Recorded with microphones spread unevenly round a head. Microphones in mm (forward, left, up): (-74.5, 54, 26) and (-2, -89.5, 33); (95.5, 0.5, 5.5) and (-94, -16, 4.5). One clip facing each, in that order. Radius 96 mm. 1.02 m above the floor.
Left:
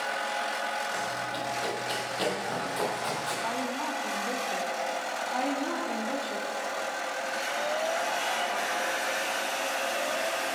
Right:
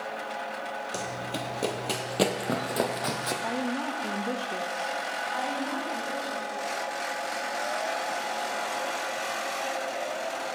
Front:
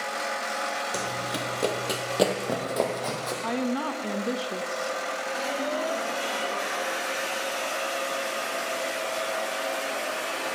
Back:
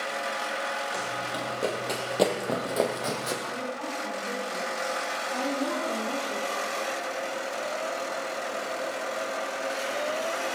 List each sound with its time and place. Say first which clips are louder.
0.9 s running footsteps: even, front 2 dB; 30° right, 1.5 m; by 3.3 s 100° right, 2.5 m
3.4 s a woman speaking: right 3 dB, front 7 dB; straight ahead, 0.9 m
5.3 s a woman speaking: left 2 dB, back 2 dB; 150° left, 3 m